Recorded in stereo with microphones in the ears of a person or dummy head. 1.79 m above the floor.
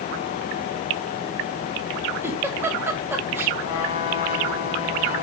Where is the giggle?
15° right (ahead or behind), 1.1 m.